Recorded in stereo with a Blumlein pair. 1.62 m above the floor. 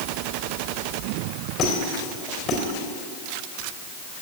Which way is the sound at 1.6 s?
30° left.